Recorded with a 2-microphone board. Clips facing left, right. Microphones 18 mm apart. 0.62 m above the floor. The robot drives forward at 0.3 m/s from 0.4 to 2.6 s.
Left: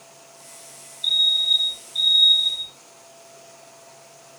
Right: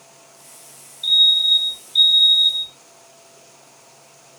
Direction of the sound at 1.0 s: 35° right (ahead or behind).